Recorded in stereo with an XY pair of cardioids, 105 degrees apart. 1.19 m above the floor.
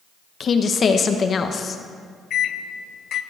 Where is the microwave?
60° left, 0.6 m.